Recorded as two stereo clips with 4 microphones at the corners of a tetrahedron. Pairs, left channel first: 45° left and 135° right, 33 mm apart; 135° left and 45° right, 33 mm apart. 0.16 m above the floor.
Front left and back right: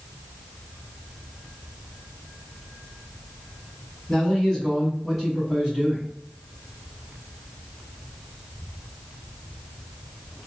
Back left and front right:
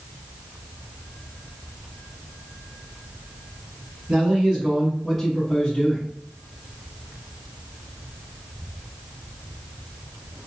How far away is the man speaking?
About 1.7 m.